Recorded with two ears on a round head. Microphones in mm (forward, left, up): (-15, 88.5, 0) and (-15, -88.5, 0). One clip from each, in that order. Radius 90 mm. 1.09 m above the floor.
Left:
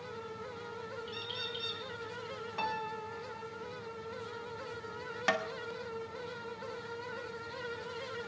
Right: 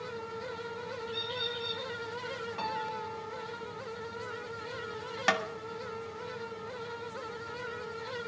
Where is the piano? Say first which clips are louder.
Even; 15° left (ahead or behind), 0.9 m.